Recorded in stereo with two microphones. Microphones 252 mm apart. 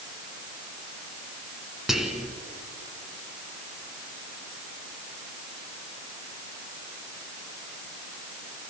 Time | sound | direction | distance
1.9 | whispering | centre (ahead or behind) | 3 m